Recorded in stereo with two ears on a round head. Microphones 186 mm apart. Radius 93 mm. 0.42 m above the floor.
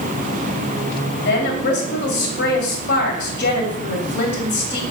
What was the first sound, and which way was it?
A woman speaking, 50° left (ahead or behind).